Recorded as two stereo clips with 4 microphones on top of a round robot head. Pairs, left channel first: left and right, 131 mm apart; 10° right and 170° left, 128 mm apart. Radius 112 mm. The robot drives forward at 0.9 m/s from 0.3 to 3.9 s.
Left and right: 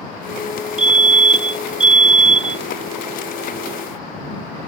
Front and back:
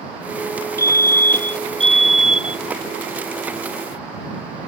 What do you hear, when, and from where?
0.8 s a fire alarm: 75° right; by 2.6 s 110° right